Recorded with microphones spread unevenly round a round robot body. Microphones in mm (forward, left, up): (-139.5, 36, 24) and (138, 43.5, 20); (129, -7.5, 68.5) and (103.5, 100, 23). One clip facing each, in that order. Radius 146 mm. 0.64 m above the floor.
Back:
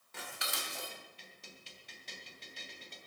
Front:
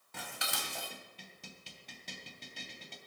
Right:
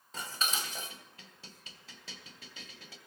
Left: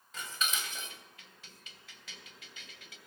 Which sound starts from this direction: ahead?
Dishes clattering, at 0.1 s.